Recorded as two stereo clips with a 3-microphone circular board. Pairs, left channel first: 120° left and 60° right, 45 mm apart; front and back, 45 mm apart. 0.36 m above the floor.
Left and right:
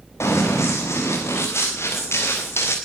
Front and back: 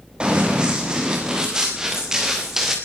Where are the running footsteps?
110° left, 5.5 m; by 2.8 s 95° left, 4.5 m.